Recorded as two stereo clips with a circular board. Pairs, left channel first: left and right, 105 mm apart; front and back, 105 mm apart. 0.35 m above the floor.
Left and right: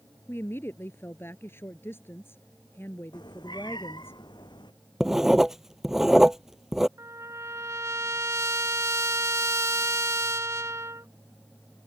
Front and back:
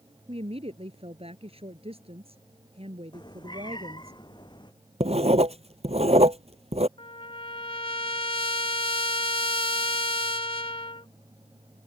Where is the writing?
175° right.